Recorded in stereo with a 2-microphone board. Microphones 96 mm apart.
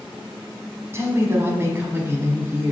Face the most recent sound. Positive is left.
turn(degrees=-25)  # may be behind; listen again after turning